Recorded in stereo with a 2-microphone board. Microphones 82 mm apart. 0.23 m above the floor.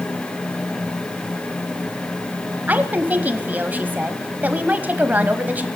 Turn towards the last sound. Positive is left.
turn(degrees=-20)  # may be behind; listen again after turning